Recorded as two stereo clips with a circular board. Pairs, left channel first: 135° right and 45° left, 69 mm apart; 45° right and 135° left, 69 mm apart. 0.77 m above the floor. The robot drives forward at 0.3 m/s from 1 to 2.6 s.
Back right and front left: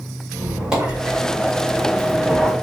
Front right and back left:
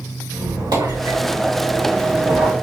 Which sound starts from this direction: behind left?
A squeak, at 0.3 s.